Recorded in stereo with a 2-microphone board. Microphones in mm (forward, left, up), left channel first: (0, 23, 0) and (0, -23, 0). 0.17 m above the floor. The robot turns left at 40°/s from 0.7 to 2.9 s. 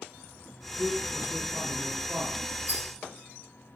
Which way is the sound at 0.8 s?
70° right.